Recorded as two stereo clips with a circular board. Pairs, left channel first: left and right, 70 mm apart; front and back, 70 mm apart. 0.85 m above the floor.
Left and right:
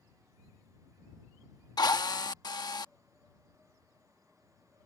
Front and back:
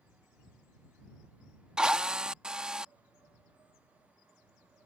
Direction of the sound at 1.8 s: 100° left.